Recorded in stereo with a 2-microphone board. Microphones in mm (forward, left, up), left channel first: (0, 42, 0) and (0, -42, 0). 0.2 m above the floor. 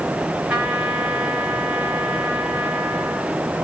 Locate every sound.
0.5 s a trumpet: 10° right (ahead or behind), 3 m